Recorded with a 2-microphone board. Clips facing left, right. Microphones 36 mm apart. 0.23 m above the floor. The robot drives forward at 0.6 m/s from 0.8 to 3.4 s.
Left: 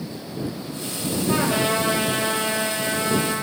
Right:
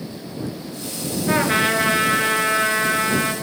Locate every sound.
1.3 s a trumpet: 70° right (ahead or behind), 3.5 m; by 3.3 s 65° right (ahead or behind), 3.5 m